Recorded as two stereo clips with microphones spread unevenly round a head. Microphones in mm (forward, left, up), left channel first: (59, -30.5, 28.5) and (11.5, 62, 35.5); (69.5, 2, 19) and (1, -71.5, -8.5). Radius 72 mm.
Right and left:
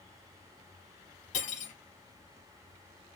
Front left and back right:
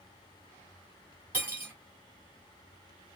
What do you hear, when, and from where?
1.3 s cutlery clinking: 60° right, 3 m